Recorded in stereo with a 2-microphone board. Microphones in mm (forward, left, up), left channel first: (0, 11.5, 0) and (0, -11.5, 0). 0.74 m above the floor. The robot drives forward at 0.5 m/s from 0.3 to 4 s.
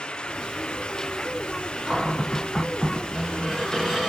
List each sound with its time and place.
1.9 s a cupboard door: 15° left (ahead or behind), 1.8 m; by 4.1 s 10° left (ahead or behind), 3 m